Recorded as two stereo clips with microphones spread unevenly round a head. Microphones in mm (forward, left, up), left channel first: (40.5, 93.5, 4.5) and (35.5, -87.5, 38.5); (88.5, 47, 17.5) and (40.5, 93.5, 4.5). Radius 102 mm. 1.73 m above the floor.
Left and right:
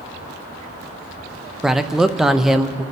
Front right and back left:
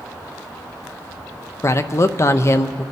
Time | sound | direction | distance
1.6 | a man speaking | 10° right | 0.7 m